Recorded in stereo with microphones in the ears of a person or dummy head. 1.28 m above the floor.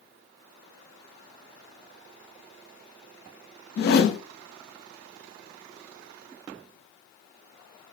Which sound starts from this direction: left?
A whoosh, at 3.8 s.